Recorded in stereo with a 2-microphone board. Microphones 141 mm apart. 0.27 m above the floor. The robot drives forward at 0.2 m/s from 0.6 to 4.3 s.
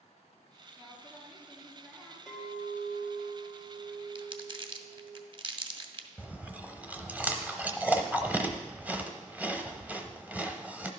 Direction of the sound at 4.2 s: 35° right (ahead or behind).